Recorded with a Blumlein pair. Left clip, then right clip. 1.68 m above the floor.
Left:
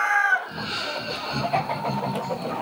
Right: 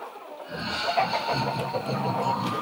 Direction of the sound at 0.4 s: 30° left.